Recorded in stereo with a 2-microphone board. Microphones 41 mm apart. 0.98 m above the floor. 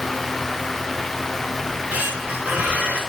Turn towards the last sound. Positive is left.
turn(degrees=-35)  # may be behind; listen again after turning